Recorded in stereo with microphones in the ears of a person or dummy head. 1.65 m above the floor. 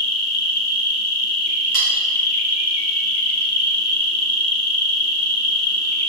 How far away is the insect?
About 0.7 m.